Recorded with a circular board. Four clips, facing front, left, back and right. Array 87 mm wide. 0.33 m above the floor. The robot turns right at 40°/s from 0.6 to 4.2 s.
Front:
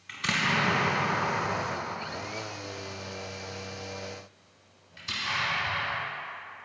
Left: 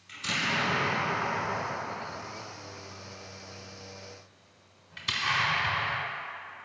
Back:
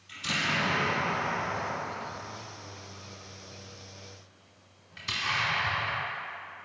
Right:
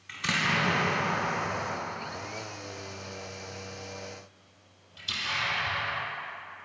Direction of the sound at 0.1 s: 35° right.